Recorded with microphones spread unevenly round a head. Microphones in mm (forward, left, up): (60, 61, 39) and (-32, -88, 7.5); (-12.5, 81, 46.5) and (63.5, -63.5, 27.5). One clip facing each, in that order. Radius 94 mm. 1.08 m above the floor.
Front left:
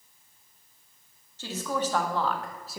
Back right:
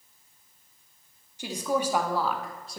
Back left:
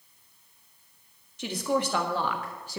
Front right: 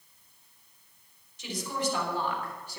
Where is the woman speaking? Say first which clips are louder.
Back right 3 dB, back left 6 dB; 165° left, 2.0 m; by 2.8 s 145° left, 1.1 m.